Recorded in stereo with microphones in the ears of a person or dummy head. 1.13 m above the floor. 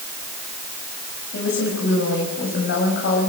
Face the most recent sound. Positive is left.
turn(degrees=65)  # may be behind; listen again after turning